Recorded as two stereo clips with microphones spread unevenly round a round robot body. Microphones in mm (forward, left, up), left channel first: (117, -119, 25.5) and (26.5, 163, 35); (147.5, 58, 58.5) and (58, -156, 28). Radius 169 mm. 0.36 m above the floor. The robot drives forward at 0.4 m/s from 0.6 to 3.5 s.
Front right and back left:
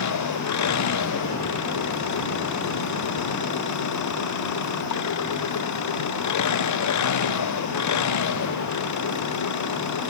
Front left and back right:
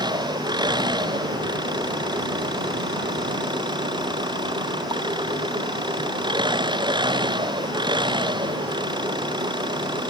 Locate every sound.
0.0 s an engine running: 40° right